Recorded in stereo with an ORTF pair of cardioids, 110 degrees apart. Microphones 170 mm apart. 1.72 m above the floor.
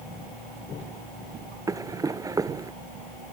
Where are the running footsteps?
20° right.